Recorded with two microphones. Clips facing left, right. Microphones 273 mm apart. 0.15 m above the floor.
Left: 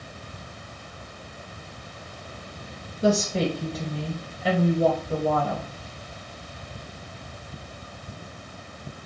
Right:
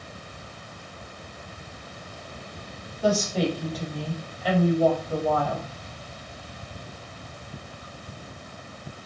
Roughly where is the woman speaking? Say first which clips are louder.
Left 1 dB; left.